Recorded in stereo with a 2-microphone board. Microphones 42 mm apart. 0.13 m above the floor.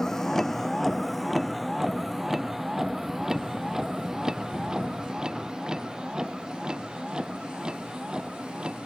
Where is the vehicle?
15° left (ahead or behind); by 8.9 s 20° right (ahead or behind).